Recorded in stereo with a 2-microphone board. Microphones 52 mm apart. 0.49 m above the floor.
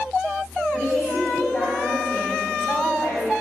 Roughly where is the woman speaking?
Centre.